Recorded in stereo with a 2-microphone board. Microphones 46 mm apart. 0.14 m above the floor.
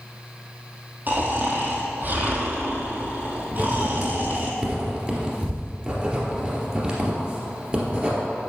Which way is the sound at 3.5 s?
25° right (ahead or behind).